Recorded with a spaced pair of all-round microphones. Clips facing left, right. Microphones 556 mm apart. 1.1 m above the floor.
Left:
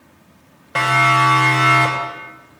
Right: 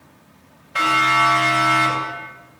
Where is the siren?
85° left, 6 m; by 2.2 s 80° left, 6 m.